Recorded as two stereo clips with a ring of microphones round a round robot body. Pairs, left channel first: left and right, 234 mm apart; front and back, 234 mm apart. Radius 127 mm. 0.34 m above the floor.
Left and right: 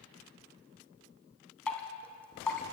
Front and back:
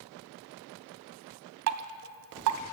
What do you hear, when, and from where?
1.7 s dripping: 175° left, 0.6 m